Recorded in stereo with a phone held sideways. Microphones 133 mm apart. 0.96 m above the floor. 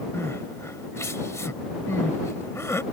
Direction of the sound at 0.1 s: 20° left (ahead or behind).